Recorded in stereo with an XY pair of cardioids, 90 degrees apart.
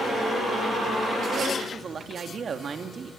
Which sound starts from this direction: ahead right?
A man speaking, at 1.6 s.